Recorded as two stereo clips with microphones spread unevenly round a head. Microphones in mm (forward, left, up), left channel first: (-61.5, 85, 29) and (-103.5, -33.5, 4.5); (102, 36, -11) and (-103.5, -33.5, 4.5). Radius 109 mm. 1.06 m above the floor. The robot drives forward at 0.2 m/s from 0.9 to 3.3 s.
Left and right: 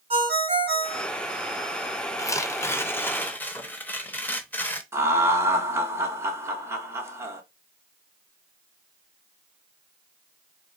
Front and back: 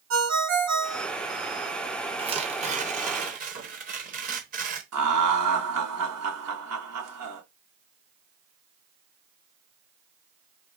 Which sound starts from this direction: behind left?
Tearing paper, at 2.2 s.